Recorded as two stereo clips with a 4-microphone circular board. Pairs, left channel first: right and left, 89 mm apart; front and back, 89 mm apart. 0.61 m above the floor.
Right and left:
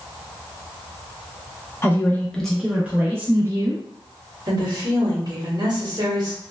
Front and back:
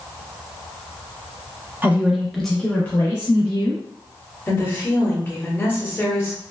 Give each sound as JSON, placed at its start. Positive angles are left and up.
{"t": 1.8, "sound": "a woman speaking", "azimuth_deg": -125, "distance_m": 0.7}
{"t": 4.5, "sound": "a woman speaking", "azimuth_deg": 60, "distance_m": 1.1}